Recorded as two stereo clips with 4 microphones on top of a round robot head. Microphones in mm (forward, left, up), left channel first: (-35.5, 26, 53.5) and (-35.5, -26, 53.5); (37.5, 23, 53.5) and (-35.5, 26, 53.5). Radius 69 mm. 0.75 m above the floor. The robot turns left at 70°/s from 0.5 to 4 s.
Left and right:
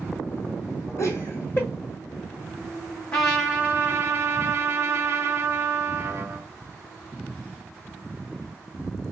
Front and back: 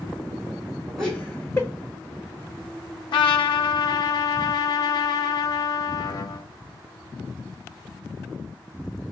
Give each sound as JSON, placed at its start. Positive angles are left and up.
{"t": 1.0, "sound": "laughter", "azimuth_deg": 95, "distance_m": 1.3}
{"t": 3.1, "sound": "a trumpet", "azimuth_deg": 15, "distance_m": 0.7}